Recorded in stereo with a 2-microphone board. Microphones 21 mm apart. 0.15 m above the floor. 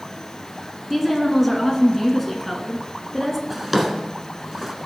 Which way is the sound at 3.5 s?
10° right (ahead or behind).